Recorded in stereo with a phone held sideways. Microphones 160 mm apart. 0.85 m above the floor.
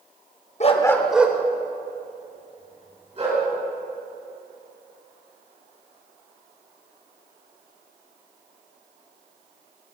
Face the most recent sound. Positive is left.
turn(degrees=-35)  # may be behind; listen again after turning